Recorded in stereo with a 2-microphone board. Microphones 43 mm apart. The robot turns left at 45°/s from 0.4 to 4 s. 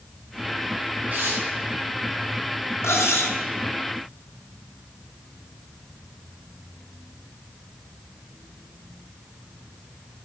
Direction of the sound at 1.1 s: 35° right (ahead or behind).